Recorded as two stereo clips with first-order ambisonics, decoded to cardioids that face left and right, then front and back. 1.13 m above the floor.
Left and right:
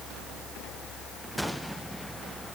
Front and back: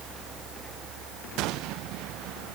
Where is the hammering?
No hammering in this recording.